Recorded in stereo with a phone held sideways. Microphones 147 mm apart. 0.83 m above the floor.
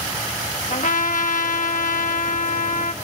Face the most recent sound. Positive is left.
turn(degrees=65)  # may be behind; listen again after turning